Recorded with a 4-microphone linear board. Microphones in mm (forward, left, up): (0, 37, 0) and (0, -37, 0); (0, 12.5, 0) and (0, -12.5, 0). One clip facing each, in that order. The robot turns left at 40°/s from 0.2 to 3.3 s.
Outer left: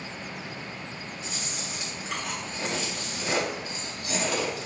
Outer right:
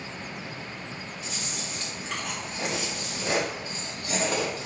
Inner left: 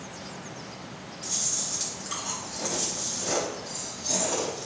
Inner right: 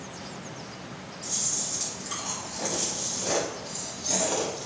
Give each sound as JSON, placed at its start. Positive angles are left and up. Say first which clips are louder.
{"t": 1.2, "sound": "chewing", "louder": "even, inner left 1 dB", "azimuth_deg": 40, "distance_m": 1.8}